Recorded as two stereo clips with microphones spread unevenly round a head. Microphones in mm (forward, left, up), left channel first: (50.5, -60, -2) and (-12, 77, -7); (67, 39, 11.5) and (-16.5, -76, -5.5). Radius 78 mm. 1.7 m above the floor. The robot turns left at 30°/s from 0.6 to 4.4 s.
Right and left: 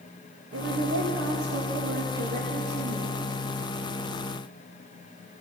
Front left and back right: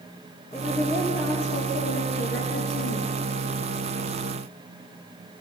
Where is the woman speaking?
130° left, 2.5 m; by 3.1 s 55° left, 2.5 m.